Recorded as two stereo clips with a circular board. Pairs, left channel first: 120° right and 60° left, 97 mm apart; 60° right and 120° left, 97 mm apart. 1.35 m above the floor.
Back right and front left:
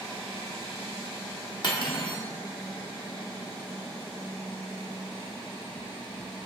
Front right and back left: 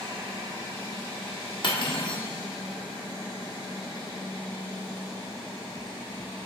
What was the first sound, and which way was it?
Cutlery clinking, 85° right.